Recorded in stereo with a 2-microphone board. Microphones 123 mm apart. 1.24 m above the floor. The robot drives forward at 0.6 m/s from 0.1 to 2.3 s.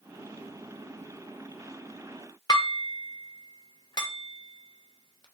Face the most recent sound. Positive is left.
turn(degrees=35)  # may be behind; listen again after turning